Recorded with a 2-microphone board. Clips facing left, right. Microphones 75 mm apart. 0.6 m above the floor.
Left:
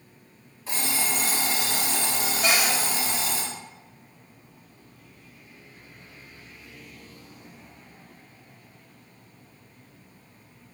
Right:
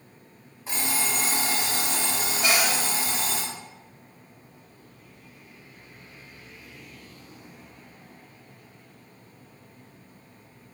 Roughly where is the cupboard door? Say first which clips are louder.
Even; centre.